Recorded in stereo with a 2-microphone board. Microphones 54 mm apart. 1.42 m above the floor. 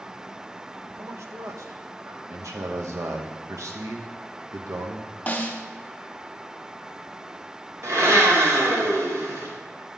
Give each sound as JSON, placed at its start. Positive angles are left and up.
{"t": 1.0, "sound": "a man speaking", "side_deg": -55, "distance_m": 0.9}
{"t": 2.3, "sound": "a man speaking", "side_deg": -65, "distance_m": 0.9}
{"t": 5.3, "sound": "a snare drum", "side_deg": 25, "distance_m": 0.9}
{"t": 7.8, "sound": "a blender", "side_deg": -55, "distance_m": 2.5}